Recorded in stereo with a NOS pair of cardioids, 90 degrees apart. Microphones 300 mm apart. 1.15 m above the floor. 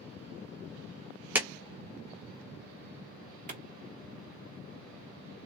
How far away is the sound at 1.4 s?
About 0.8 m.